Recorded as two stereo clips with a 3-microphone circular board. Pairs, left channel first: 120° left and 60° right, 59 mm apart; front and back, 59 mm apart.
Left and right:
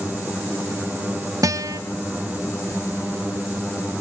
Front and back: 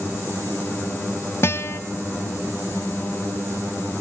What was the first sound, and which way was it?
A guitar, 45° right.